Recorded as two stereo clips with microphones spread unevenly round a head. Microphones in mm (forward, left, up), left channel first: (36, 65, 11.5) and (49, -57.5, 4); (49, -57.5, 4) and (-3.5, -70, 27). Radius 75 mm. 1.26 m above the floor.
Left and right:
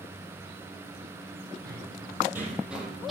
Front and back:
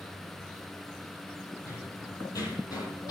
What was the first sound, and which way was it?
Running footsteps, 25° right.